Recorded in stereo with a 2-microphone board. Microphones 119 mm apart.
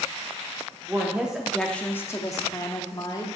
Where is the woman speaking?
15° right (ahead or behind), 1.2 m; by 3.3 s 35° left (ahead or behind), 1.6 m.